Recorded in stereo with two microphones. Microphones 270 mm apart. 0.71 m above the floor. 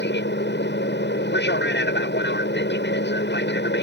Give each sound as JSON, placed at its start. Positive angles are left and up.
{"t": 0.0, "sound": "an aircraft", "side_deg": 40}